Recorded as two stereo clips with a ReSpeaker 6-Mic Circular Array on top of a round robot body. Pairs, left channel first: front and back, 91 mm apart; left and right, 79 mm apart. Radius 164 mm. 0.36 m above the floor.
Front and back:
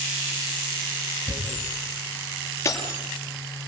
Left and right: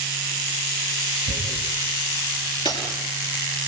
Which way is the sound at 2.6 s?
60° left.